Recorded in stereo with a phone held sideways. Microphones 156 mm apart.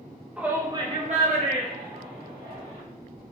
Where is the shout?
5° right (ahead or behind), 0.8 m; by 2.8 s 55° right (ahead or behind), 1.6 m.